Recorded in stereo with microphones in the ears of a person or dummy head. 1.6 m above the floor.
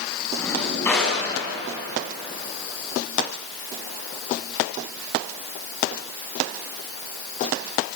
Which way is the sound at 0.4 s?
5° left (ahead or behind).